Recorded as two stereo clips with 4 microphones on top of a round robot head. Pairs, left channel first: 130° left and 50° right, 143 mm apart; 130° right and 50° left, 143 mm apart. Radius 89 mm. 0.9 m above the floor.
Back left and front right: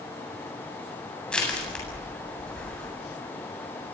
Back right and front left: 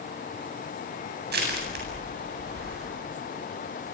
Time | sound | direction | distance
1.3 | crushing | 45° left | 8 m